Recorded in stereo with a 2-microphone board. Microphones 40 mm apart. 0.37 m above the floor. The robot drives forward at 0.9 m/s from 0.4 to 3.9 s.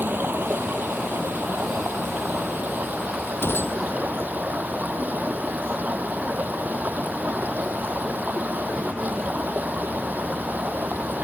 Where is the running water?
60° right (ahead or behind); by 11.2 s 45° right (ahead or behind).